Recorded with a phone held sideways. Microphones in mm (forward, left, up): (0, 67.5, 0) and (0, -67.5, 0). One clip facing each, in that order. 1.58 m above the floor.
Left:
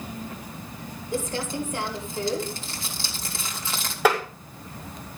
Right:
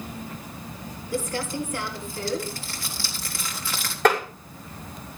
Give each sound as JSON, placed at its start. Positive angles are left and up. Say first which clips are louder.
{"t": 1.1, "sound": "crumpling", "louder": "even", "side_deg": 20, "distance_m": 3.5}
{"t": 4.0, "sound": "tapping", "louder": "right 1 dB", "side_deg": 5, "distance_m": 5.5}